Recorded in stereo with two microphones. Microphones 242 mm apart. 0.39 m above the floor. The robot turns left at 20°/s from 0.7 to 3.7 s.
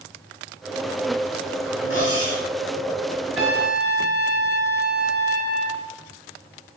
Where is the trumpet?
80° right, 6 m; by 5.9 s 75° right (ahead or behind), 6 m.